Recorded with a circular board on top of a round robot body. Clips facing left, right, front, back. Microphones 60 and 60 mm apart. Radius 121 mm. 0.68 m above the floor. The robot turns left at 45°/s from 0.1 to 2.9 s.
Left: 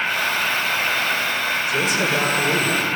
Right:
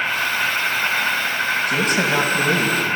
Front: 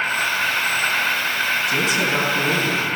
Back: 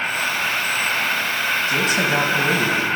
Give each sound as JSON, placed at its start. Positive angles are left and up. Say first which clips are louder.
{"t": 0.0, "sound": "an insect", "louder": "right 1 dB, front 1 dB", "azimuth_deg": -25, "distance_m": 8.0}
{"t": 1.7, "sound": "a man speaking", "louder": "right 1 dB, back 1 dB", "azimuth_deg": -120, "distance_m": 5.0}